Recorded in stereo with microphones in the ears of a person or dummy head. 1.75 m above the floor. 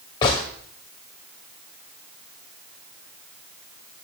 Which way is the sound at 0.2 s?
20° left (ahead or behind).